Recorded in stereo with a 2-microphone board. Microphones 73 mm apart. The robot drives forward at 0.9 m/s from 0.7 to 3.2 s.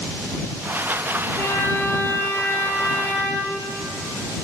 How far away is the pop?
I don't hear a pop.